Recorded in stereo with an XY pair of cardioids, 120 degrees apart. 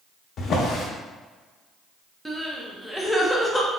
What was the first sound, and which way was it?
A drawer, 50° left.